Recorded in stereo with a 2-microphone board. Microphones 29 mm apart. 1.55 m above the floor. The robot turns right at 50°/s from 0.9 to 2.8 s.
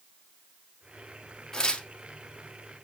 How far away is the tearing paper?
About 0.8 m.